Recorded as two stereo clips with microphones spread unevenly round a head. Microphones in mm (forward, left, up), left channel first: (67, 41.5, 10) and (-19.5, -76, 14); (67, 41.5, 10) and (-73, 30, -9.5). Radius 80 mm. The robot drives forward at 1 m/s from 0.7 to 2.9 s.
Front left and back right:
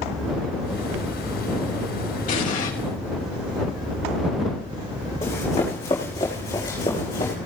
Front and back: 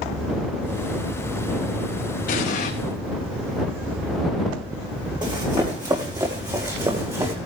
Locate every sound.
2.3 s an explosion: 20° left, 4 m; by 2.7 s 25° left, 3.5 m
5.2 s running footsteps: 125° left, 6 m; by 7.3 s 115° left, 7 m